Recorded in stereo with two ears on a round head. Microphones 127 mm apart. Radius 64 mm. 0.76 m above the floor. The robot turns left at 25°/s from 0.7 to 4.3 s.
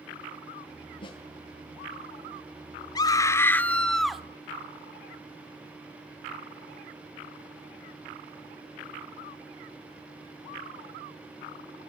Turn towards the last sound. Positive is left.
turn(degrees=-5)